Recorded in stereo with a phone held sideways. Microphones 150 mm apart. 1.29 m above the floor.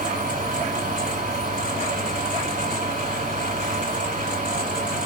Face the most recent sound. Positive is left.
turn(degrees=-60)  # may be behind; listen again after turning